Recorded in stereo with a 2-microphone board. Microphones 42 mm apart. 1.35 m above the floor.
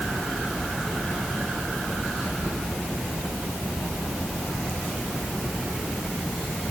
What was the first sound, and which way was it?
Only background noise.